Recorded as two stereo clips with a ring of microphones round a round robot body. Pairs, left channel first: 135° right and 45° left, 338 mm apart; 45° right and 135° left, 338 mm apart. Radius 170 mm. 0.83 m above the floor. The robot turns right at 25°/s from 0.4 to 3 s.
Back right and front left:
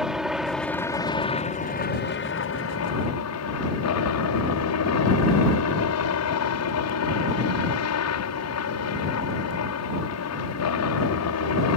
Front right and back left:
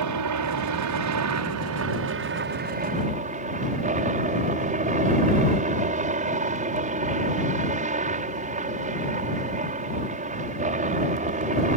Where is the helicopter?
135° left; by 11.8 s 160° right.